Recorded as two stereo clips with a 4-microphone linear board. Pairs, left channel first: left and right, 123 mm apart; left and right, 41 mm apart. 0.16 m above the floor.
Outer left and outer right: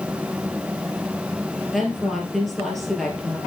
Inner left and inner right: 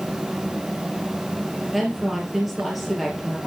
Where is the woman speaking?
Centre (ahead or behind), 3 m.